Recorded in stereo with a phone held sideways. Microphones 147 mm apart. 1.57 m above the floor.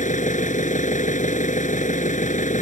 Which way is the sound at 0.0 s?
60° left (ahead or behind).